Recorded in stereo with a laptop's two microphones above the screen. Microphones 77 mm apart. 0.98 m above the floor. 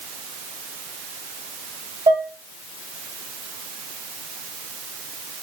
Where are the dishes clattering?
50° right (ahead or behind), 3.5 m.